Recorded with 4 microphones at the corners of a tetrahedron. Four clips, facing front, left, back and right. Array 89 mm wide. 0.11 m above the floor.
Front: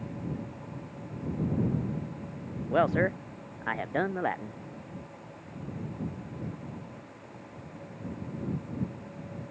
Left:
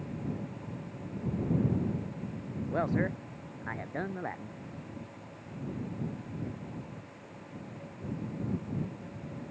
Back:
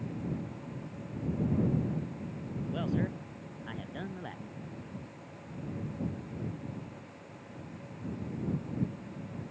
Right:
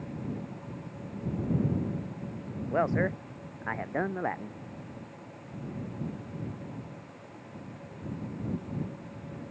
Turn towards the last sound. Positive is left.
turn(degrees=-30)